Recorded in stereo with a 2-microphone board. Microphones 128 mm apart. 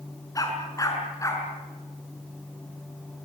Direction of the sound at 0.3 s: 30° left (ahead or behind).